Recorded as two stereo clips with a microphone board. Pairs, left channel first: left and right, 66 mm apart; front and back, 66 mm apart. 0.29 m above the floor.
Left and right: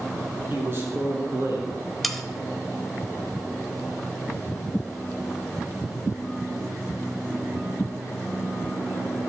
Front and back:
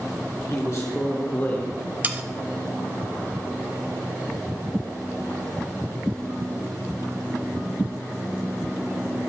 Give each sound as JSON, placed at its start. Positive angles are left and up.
{"t": 0.5, "sound": "a man speaking", "azimuth_deg": -35, "distance_m": 3.0}
{"t": 2.0, "sound": "sawing", "azimuth_deg": 180, "distance_m": 0.7}